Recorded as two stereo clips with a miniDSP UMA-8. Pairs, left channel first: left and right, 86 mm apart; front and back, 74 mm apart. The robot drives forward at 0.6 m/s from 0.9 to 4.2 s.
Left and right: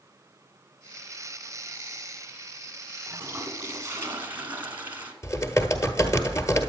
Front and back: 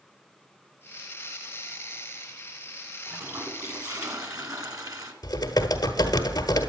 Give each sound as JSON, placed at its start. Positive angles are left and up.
{"t": 3.1, "sound": "a toilet flushing", "azimuth_deg": -135, "distance_m": 1.1}
{"t": 5.2, "sound": "typing on a keyboard", "azimuth_deg": 35, "distance_m": 1.1}